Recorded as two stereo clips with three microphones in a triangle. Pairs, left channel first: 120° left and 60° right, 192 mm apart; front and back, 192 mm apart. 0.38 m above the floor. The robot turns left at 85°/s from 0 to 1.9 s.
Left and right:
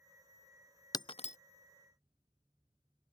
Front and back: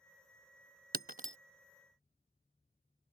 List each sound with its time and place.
0.9 s breaking glass: 175° right; by 1.4 s 145° left